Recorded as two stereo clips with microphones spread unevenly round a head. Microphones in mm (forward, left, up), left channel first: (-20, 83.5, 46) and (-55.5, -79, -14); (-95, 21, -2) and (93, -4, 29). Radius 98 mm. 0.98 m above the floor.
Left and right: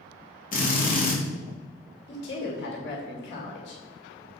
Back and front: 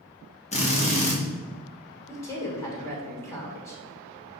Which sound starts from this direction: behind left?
A drill, at 0.5 s.